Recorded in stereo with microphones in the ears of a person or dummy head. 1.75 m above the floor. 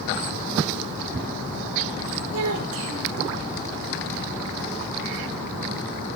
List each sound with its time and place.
2.3 s a child speaking: 80° right, 3.5 m